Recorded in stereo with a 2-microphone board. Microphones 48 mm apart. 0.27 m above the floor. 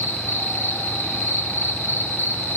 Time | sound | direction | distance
0.0 | an insect | 65° left (ahead or behind) | 1.7 m